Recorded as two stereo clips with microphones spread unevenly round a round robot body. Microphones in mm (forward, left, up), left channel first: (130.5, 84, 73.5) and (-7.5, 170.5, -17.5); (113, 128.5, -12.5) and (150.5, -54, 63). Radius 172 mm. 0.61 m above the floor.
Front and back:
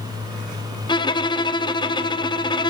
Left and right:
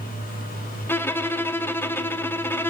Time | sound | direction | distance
0.9 | a violin | 60° left | 0.7 m